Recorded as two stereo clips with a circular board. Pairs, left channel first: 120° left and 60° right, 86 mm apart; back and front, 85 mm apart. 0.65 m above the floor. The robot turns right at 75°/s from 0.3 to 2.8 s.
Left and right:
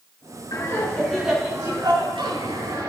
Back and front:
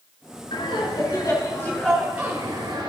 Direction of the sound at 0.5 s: 160° left.